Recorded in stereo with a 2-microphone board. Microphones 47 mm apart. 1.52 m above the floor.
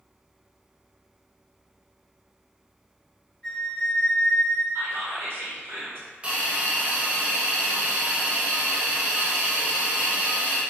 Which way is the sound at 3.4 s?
20° left (ahead or behind).